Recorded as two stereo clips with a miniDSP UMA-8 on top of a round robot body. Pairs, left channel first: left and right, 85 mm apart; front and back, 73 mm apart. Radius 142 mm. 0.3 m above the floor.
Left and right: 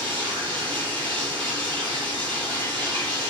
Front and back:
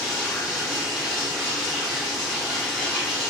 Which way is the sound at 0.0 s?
90° right.